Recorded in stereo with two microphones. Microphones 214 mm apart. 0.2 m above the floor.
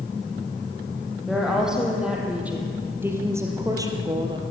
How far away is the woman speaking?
About 6 m.